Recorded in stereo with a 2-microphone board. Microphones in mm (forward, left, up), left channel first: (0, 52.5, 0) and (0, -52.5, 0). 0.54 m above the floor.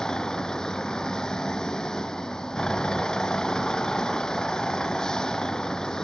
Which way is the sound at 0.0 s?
5° left (ahead or behind).